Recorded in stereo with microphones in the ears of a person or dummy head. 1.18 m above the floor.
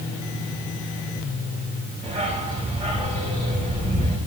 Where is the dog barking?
35° right (ahead or behind), 5.5 m.